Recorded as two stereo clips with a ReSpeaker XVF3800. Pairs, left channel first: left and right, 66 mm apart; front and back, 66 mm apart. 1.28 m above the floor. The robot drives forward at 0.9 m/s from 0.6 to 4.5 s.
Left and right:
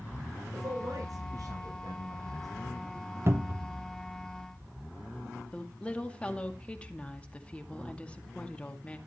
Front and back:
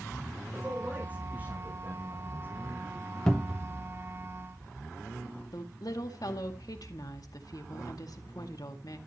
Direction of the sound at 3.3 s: 75° right.